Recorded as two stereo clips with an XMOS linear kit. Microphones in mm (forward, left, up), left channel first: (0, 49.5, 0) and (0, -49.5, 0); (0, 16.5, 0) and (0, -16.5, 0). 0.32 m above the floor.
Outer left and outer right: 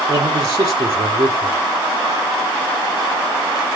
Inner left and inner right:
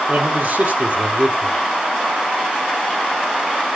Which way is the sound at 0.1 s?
35° right (ahead or behind).